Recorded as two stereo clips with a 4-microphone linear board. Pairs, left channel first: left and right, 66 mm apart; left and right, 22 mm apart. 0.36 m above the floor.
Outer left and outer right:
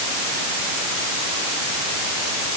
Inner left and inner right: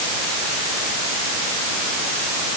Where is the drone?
No drone in this recording.